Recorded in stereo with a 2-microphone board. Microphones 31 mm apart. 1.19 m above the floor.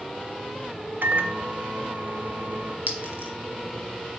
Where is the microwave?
80° right, 0.6 m.